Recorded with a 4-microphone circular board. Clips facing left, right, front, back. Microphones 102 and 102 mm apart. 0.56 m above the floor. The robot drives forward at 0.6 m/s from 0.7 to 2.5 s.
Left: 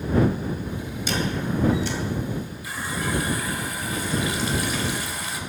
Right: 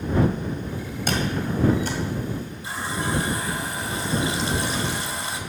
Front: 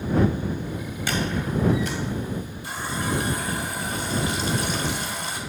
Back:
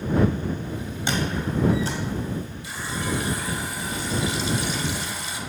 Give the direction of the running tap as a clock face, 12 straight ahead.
1 o'clock.